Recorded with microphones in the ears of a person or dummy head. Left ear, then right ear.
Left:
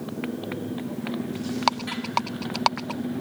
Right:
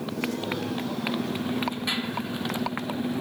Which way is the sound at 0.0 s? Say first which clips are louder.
Right 2 dB; 25° right (ahead or behind).